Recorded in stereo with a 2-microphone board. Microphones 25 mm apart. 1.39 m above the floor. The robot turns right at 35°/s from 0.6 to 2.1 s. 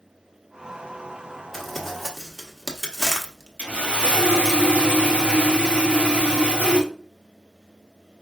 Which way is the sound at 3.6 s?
70° right (ahead or behind).